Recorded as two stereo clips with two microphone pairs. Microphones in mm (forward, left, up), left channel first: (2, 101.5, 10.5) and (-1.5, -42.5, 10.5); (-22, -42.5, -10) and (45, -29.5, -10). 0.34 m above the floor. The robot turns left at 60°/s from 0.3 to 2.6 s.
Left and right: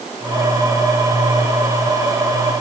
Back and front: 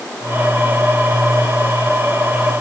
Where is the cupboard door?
No cupboard door in this recording.